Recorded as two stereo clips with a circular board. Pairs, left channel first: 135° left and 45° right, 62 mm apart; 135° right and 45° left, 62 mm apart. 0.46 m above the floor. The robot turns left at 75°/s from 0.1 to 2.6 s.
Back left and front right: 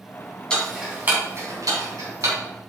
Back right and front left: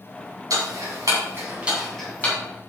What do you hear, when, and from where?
0.5 s ticking: 60° left, 3.5 m; by 2.4 s 80° right, 3.5 m